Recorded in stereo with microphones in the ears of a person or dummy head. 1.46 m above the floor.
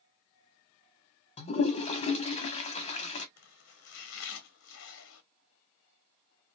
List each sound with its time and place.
1.4 s a toilet flushing: 35° left (ahead or behind), 0.6 m
3.4 s chopping: 65° left (ahead or behind), 0.7 m